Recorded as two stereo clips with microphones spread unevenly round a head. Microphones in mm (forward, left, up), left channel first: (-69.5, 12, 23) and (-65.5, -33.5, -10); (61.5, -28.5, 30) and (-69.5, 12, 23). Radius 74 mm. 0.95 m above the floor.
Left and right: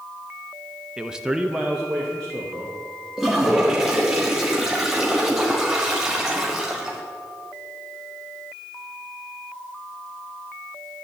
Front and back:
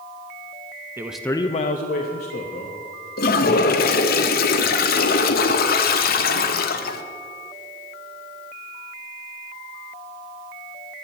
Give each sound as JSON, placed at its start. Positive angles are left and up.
{"t": 1.0, "sound": "a man speaking", "azimuth_deg": -130, "distance_m": 0.7}
{"t": 3.2, "sound": "a toilet flushing", "azimuth_deg": -15, "distance_m": 0.8}